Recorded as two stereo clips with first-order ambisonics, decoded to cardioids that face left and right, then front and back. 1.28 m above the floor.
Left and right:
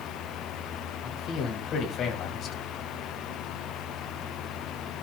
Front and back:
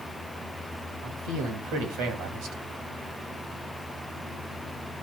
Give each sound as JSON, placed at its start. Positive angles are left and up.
{"t": 1.0, "sound": "a man speaking", "azimuth_deg": 145, "distance_m": 2.0}